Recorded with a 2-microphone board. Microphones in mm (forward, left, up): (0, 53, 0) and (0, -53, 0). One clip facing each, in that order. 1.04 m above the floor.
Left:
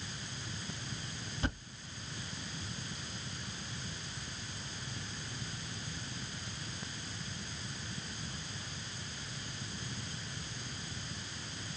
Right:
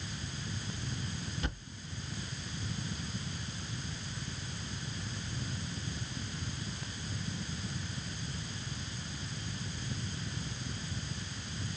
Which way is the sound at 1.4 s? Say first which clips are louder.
Left 8 dB; 35° left (ahead or behind).